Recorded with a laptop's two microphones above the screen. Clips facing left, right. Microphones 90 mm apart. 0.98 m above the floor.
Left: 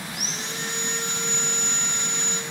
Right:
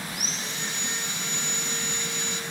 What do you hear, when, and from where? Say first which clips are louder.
0.1 s sawing: left 1 dB; 60° left (ahead or behind), 1.7 m